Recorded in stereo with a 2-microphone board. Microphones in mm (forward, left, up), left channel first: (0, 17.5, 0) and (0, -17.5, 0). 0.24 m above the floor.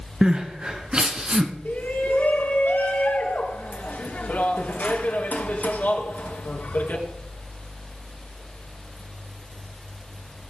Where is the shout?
60° left (ahead or behind), 3 m.